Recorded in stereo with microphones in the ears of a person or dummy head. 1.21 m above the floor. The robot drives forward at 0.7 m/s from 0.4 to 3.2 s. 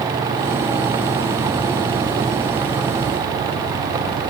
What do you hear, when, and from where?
Only background noise.